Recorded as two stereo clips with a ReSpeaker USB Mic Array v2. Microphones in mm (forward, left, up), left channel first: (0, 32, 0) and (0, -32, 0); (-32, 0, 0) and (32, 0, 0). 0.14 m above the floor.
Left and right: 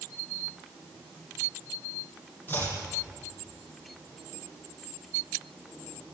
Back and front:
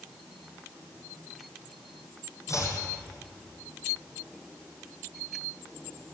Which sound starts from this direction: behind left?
Chopping, at 2.5 s.